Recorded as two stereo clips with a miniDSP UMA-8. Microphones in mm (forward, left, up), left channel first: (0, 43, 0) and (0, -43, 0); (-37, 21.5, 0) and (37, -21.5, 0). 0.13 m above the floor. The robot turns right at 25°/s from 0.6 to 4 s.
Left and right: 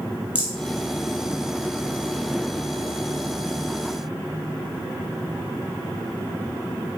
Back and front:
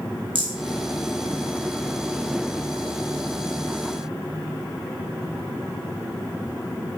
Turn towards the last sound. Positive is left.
turn(degrees=70)